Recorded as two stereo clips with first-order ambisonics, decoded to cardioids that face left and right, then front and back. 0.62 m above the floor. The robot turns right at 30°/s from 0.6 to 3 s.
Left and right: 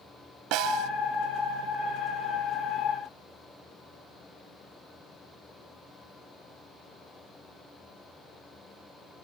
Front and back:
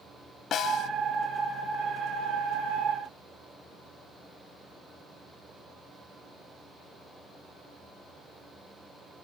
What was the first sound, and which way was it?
A snare drum, 60° right.